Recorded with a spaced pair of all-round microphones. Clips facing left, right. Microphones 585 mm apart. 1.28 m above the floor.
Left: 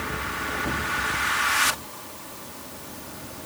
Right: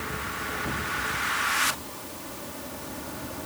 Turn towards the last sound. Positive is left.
No sound to turn to.